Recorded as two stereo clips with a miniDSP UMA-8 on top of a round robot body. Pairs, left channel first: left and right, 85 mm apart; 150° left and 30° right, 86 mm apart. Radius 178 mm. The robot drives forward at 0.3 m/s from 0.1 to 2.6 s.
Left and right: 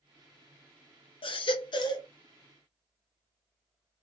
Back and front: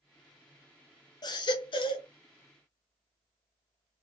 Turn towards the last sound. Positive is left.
turn(degrees=140)